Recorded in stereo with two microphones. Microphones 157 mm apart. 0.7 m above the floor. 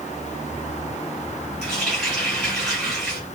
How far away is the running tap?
About 5 m.